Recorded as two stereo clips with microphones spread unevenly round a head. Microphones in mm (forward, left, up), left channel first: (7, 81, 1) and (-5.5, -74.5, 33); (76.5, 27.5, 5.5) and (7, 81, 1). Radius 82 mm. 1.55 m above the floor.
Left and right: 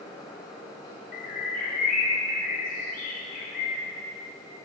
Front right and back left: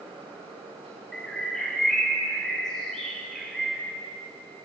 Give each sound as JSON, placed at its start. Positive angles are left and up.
{"t": 0.0, "sound": "a fan", "azimuth_deg": 155, "distance_m": 7.0}
{"t": 1.1, "sound": "a bird", "azimuth_deg": 45, "distance_m": 4.0}